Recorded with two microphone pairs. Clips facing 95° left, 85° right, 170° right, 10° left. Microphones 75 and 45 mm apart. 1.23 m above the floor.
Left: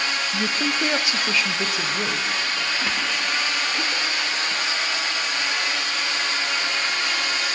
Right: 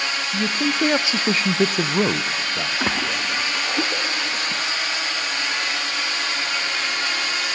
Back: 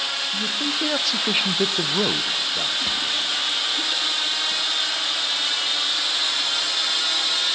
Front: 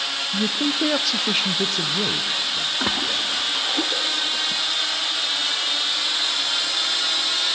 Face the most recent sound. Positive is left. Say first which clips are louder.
# right 2 dB, front 1 dB
turn(degrees=-30)